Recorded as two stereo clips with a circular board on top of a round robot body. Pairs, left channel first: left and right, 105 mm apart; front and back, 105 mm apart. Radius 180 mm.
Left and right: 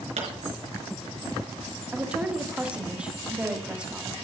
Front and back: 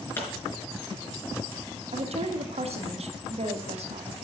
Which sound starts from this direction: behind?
A woman speaking, at 1.9 s.